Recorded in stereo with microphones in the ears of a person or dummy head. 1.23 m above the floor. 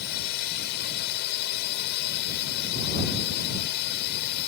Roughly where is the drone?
Left.